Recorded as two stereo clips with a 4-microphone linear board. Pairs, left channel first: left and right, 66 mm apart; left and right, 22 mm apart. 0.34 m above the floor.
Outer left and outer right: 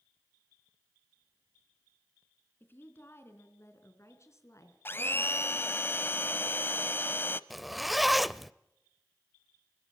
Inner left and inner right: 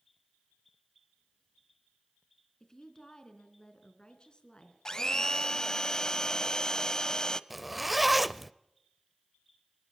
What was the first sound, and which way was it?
A woman speaking, 35° left (ahead or behind).